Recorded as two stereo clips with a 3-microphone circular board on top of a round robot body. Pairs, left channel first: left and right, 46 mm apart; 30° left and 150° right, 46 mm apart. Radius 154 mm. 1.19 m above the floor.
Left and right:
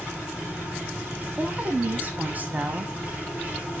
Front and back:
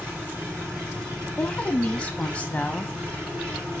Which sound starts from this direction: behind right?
An engine running, at 0.0 s.